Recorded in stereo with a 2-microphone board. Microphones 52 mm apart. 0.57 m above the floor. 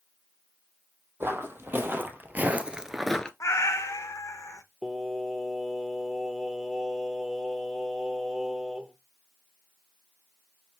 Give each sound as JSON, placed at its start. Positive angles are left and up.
{"t": 1.2, "sound": "footsteps", "side_deg": -50, "distance_m": 1.4}
{"t": 3.4, "sound": "a cat meowing", "side_deg": 75, "distance_m": 0.6}
{"t": 4.8, "sound": "singing", "side_deg": -5, "distance_m": 0.7}